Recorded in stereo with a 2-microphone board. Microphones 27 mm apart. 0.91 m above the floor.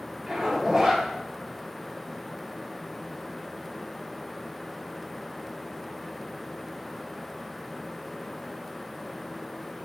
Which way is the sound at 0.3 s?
15° right (ahead or behind).